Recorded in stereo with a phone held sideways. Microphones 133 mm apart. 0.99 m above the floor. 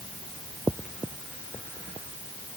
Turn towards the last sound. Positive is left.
No sound to turn to.